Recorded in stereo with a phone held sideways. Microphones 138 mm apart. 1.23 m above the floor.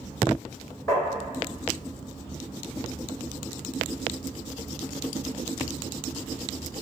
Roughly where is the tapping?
Left.